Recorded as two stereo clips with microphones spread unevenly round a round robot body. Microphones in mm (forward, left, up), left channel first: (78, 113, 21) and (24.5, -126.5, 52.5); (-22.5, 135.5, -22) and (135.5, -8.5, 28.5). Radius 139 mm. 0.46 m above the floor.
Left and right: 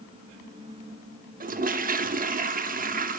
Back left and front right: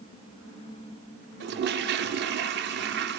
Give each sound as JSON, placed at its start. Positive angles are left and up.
{"t": 1.4, "sound": "a toilet flushing", "azimuth_deg": -60, "distance_m": 0.5}